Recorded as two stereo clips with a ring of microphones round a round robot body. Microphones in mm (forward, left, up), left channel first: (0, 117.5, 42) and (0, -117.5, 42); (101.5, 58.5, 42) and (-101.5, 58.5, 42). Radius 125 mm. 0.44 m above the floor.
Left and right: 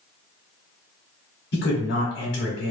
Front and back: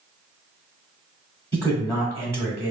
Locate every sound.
1.5 s a man speaking: 80° left, 1.0 m